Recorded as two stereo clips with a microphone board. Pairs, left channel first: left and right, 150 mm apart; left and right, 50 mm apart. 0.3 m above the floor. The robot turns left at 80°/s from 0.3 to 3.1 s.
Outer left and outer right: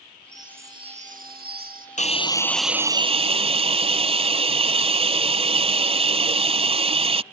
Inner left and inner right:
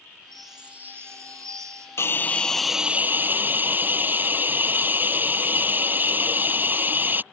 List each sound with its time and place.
0.3 s a chime: 5° left; by 1.9 s 120° right
2.0 s a hiss: 50° left; by 7.2 s 40° right